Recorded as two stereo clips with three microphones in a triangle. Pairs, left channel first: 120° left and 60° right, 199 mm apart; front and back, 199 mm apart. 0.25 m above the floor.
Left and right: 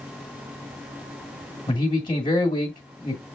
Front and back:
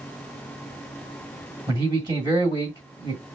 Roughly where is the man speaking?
Behind left.